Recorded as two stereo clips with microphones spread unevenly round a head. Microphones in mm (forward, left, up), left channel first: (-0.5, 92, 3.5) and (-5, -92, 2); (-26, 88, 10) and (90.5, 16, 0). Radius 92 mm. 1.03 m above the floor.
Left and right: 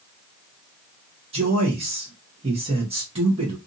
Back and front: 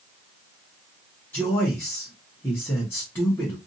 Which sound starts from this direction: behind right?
A man speaking, at 1.3 s.